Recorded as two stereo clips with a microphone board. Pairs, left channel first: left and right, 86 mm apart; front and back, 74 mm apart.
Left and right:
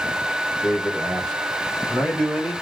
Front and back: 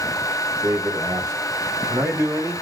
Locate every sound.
0.6 s a man speaking: straight behind, 2.5 m; by 2.5 s 170° left, 1.5 m